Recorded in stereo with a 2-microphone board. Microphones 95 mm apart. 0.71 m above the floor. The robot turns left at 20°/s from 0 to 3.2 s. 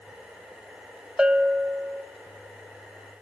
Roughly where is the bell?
Centre.